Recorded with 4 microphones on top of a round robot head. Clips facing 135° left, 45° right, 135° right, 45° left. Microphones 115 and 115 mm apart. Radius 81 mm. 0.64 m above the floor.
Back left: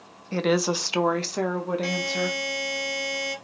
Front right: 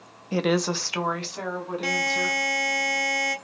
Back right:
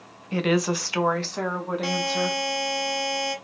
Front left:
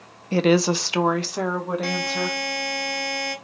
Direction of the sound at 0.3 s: 25° left.